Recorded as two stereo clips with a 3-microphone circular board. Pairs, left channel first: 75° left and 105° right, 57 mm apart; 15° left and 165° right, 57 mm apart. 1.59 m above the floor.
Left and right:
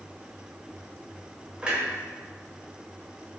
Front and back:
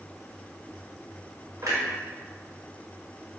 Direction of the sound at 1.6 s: Straight behind.